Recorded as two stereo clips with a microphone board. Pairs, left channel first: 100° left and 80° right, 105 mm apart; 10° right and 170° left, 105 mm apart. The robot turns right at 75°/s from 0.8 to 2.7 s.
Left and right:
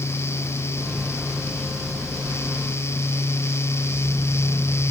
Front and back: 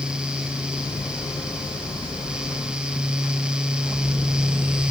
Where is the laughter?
I don't hear laughter.